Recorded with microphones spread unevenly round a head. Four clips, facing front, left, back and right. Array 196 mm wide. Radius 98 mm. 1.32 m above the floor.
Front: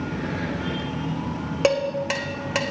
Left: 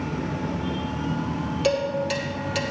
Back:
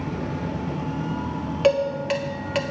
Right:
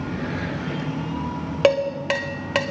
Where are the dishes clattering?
65° right, 1.7 m.